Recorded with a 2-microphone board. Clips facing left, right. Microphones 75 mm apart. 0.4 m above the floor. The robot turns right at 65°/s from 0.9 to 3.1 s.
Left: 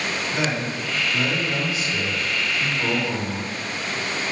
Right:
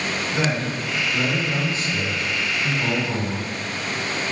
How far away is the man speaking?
About 1.3 m.